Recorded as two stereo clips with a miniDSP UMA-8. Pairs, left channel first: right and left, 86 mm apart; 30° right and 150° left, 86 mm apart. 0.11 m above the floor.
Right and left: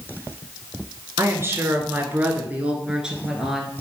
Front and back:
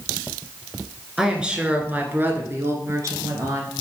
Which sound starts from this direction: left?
A woman speaking, at 1.2 s.